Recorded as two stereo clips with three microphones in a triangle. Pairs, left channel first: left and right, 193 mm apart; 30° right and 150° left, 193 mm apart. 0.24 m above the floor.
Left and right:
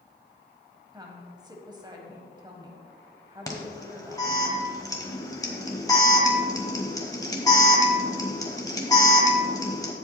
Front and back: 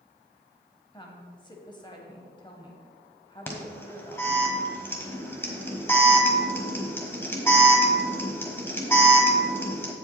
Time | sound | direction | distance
0.9 | a woman speaking | 55° right | 1.2 m
3.5 | an alarm | 35° left | 1.2 m